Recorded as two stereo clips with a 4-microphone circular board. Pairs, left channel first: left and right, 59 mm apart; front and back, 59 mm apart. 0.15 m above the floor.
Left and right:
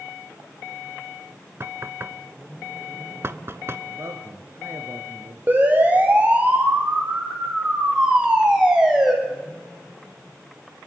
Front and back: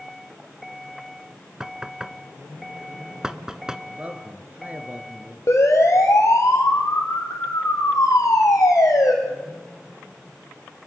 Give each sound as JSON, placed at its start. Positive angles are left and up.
{"t": 1.6, "sound": "knocking", "azimuth_deg": -105, "distance_m": 1.0}
{"t": 3.9, "sound": "a man speaking", "azimuth_deg": -120, "distance_m": 2.5}
{"t": 5.5, "sound": "a siren", "azimuth_deg": -30, "distance_m": 5.0}